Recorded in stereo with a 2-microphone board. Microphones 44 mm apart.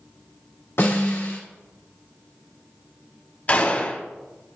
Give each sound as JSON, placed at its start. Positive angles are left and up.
{"t": 0.8, "sound": "a snare drum", "side_deg": 75, "distance_m": 2.5}
{"t": 3.5, "sound": "a gunshot", "side_deg": 35, "distance_m": 0.8}